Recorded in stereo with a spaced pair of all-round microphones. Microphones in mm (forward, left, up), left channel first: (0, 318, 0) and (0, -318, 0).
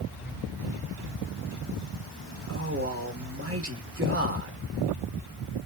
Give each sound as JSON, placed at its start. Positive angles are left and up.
{"t": 2.5, "sound": "a man speaking", "side_deg": -20, "distance_m": 1.2}